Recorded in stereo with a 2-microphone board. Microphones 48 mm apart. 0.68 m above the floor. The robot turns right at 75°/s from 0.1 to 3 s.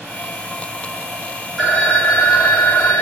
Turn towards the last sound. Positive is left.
turn(degrees=110)